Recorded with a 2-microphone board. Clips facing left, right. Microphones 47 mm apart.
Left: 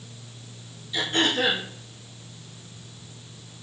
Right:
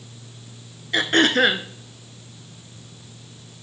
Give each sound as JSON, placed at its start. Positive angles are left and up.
{"t": 0.9, "sound": "throat clearing", "side_deg": -65, "distance_m": 0.7}